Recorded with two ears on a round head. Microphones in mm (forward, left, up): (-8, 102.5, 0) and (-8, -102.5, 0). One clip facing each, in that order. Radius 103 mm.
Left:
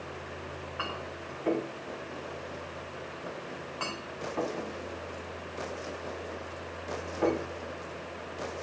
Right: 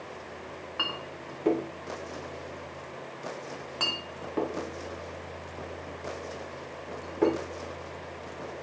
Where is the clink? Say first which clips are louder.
Right 1 dB; 55° right (ahead or behind), 1.6 m.